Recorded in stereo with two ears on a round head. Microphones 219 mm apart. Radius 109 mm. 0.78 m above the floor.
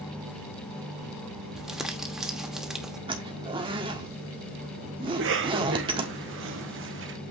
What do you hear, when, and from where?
1.6 s crumpling: centre (ahead or behind), 1.3 m
3.1 s a zipper: 20° right (ahead or behind), 1.4 m
5.1 s a cough: 50° right (ahead or behind), 1.4 m